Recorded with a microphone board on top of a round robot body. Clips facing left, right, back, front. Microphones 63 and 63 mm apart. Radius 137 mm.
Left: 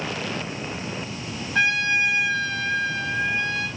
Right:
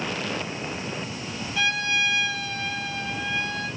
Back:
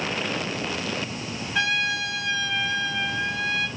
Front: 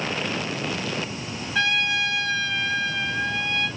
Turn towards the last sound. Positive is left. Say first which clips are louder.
# left 4 dB, front 2 dB
turn(degrees=100)